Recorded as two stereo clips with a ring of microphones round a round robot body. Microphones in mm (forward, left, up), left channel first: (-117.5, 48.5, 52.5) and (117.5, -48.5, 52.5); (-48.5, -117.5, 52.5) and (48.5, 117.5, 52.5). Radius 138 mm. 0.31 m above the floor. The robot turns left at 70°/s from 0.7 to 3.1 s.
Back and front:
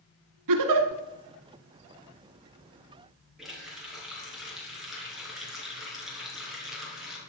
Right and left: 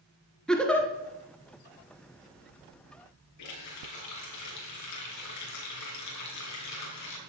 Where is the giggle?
25° right, 1.4 m; by 0.9 s 40° right, 1.4 m.